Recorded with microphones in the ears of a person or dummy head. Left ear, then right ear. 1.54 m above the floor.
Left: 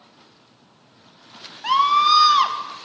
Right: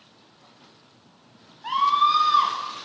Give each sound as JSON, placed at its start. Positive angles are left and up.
{"t": 1.6, "sound": "a scream", "side_deg": 50, "distance_m": 2.0}